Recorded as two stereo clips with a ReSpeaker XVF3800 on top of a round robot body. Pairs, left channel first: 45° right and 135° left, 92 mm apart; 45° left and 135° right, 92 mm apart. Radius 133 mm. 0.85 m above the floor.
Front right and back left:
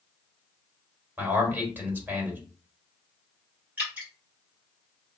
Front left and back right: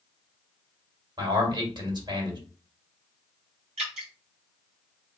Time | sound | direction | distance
1.2 | a man speaking | 155° right | 1.7 m
3.8 | dripping | 150° right | 0.7 m